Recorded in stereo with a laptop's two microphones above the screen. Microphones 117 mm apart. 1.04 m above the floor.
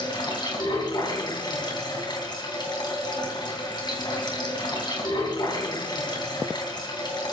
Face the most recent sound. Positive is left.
turn(degrees=40)  # may be behind; listen again after turning